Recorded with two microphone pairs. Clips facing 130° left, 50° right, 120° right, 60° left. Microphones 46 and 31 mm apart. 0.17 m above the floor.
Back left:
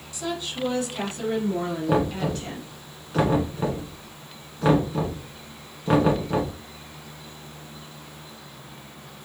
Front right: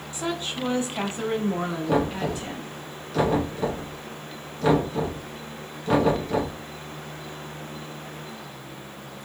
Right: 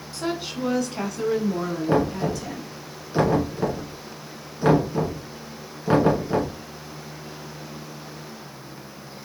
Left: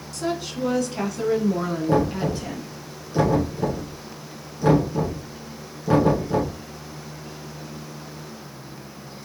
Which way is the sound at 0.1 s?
75° right.